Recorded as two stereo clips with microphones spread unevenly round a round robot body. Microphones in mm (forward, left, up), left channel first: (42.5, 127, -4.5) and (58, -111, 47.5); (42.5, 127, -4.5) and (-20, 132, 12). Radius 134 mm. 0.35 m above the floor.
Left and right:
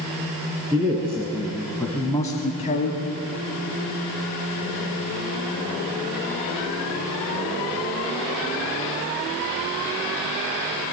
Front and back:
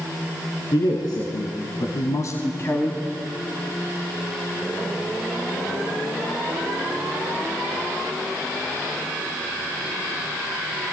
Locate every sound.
0.7 s a man speaking: 10° right, 4 m; by 3.0 s 50° left, 2.5 m